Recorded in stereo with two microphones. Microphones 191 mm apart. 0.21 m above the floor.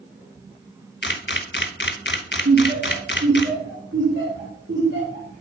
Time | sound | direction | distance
1.0 | a camera shutter | 65° left (ahead or behind) | 0.5 m
2.5 | laughter | 65° right (ahead or behind) | 2.5 m